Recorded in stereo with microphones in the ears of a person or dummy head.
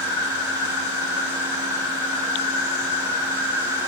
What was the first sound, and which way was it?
An insect, 75° left (ahead or behind).